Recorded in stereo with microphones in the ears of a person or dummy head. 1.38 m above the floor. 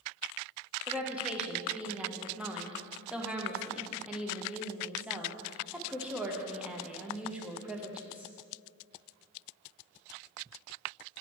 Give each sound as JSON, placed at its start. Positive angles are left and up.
{"t": 0.9, "sound": "a woman speaking", "side_deg": -10, "distance_m": 0.8}